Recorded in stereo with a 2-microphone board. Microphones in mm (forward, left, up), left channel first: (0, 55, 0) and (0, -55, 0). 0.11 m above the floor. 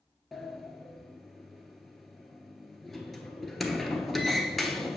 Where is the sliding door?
Centre (ahead or behind), 0.7 m.